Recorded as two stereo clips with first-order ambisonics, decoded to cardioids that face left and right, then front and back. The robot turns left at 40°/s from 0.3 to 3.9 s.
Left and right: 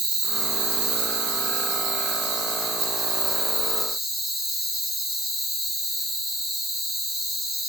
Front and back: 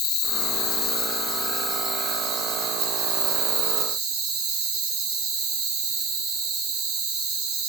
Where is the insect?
35° right, 0.8 m; by 7.7 s straight behind, 0.8 m.